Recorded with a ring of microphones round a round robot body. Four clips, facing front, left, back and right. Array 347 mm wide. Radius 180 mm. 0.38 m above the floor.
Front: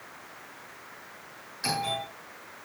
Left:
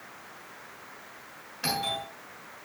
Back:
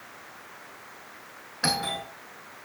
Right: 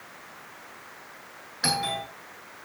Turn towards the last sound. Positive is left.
turn(degrees=-170)